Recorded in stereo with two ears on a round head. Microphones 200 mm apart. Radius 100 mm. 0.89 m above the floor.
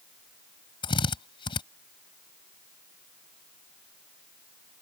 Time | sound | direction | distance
0.8 | a drill | 25° left (ahead or behind) | ?